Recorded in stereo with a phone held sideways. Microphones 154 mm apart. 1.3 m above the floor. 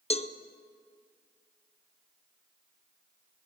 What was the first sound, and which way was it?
A cowbell, 40° left (ahead or behind).